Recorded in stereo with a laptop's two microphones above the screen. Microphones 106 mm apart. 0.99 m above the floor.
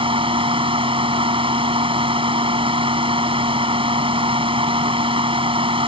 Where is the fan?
60° right (ahead or behind).